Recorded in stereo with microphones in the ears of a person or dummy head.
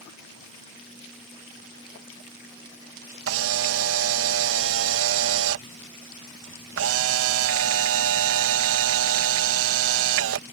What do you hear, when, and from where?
3.3 s a camera shutter: 80° right